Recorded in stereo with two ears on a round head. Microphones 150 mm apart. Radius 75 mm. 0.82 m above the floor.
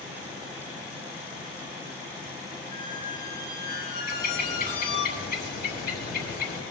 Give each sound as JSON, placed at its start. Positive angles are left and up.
{"t": 2.7, "sound": "a squeak", "side_deg": 65, "distance_m": 2.0}
{"t": 4.1, "sound": "a bird", "side_deg": 65, "distance_m": 4.0}